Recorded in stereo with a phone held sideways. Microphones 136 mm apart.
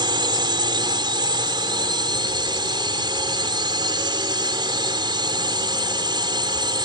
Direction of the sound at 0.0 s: 35° right (ahead or behind).